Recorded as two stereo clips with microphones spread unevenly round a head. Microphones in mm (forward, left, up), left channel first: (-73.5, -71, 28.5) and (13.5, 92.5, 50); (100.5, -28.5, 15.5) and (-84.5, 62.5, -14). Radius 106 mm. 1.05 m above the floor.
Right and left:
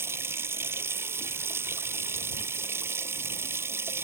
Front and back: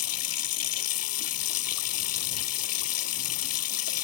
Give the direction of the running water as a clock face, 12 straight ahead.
1 o'clock.